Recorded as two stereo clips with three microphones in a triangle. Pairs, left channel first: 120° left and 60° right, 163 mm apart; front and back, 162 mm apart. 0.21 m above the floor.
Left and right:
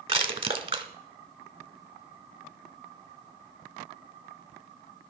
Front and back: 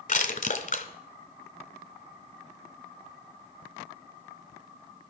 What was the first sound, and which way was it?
Crushing, 10° right.